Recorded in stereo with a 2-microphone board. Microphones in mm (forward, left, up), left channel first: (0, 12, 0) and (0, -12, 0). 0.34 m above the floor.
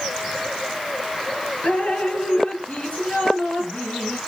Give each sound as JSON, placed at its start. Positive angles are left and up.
{"t": 1.6, "sound": "dripping", "side_deg": 65, "distance_m": 3.0}